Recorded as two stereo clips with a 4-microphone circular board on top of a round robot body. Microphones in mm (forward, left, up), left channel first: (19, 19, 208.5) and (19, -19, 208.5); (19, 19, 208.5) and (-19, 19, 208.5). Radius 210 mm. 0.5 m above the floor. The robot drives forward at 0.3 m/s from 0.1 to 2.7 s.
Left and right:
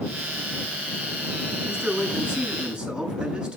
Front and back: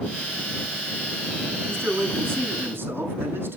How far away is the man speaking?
About 7.5 m.